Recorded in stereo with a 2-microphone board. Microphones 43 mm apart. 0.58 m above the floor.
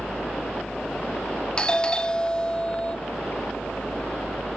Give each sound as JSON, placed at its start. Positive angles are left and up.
{"t": 0.0, "sound": "a helicopter", "side_deg": 70}
{"t": 1.6, "sound": "a doorbell", "side_deg": 25}